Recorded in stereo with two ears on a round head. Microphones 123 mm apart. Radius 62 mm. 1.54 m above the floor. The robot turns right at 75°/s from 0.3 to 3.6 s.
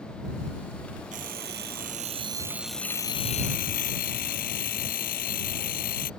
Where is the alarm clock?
120° right; by 6.1 s 65° left.